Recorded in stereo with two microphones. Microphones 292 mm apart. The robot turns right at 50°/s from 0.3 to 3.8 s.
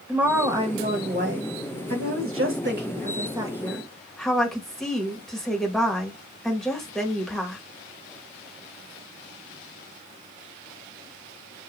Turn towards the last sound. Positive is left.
turn(degrees=0)